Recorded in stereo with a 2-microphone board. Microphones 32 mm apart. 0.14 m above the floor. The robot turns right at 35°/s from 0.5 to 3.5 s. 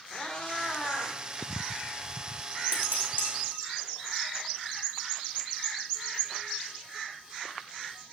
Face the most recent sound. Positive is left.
turn(degrees=75)  # may be behind; listen again after turning